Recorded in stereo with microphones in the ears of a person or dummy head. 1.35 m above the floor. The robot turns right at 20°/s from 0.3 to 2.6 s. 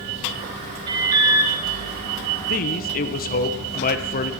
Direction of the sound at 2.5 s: 45° left (ahead or behind).